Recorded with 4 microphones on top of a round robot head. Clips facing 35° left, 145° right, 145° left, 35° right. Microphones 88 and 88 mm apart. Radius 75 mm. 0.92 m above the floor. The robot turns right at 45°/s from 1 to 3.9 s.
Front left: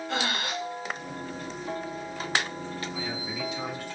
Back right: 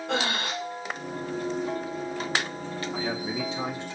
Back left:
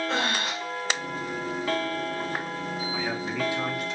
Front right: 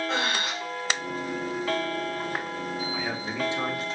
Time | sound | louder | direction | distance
0.1 | breathing | back right 2 dB, back left 1 dB | 125° right | 2.5 m
2.9 | a man speaking | back right 4 dB, back left 1 dB | 125° right | 1.6 m